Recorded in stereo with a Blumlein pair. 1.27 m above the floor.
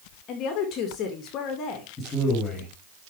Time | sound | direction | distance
0.3 | a woman speaking | 35° left | 2.5 m
2.0 | a man speaking | 20° left | 3.5 m